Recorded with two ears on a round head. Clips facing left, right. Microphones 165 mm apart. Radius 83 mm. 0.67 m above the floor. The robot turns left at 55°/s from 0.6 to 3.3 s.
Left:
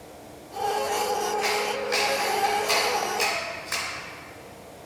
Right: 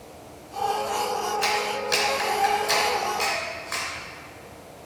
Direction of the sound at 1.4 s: 65° right (ahead or behind).